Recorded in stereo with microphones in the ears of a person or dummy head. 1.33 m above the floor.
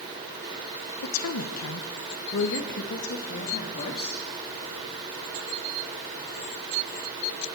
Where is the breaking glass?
I don't hear breaking glass.